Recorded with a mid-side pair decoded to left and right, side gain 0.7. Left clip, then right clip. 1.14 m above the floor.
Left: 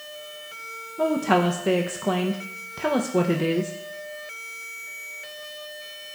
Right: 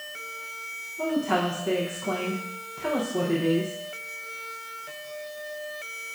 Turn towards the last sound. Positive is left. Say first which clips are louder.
# left 5 dB
turn(degrees=40)